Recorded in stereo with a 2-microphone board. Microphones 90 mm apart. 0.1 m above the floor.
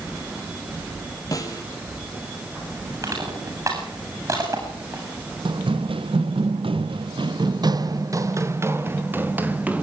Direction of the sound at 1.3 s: 40° left (ahead or behind).